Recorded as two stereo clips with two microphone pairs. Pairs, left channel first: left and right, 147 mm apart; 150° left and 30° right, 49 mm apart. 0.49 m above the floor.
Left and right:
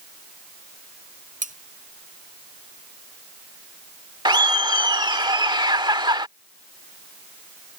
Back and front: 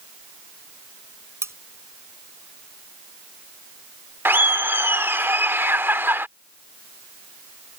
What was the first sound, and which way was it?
Cutlery clinking, 60° right.